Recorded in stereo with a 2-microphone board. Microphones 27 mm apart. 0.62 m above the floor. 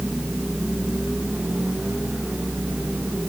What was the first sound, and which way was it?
Only background noise.